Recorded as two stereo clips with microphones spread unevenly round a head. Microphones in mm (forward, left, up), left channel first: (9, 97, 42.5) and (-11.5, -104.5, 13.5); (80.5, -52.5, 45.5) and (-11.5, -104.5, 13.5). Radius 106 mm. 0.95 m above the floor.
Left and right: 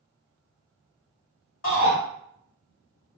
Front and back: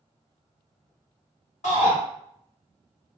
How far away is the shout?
About 1.5 m.